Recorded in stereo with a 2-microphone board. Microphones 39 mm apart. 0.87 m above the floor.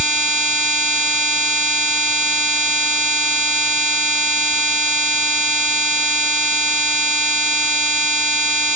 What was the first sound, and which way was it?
Only background noise.